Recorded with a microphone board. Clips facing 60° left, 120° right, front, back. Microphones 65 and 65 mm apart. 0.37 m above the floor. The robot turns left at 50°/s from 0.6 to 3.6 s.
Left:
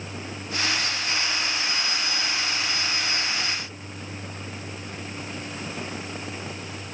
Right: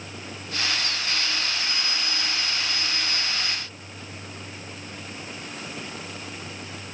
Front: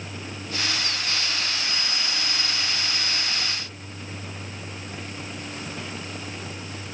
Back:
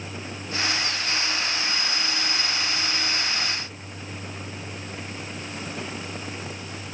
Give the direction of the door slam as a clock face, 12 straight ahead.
I don't hear a door slam.